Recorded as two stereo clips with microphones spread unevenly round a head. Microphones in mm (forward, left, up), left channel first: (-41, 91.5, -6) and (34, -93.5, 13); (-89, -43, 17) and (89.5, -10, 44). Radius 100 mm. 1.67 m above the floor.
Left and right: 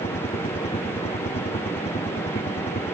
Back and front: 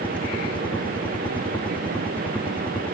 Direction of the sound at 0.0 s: 130° left.